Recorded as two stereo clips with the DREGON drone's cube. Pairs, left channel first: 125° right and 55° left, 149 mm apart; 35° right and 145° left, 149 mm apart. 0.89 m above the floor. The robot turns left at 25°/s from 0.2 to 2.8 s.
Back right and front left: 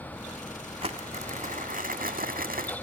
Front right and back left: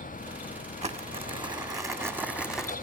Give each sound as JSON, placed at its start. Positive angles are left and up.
{"t": 0.8, "sound": "crumpling", "azimuth_deg": 105, "distance_m": 1.6}